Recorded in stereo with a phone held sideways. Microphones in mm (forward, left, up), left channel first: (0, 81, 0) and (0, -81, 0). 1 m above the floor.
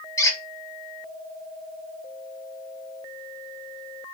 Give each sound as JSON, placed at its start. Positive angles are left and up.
{"t": 0.2, "sound": "a squeak", "side_deg": 20, "distance_m": 0.6}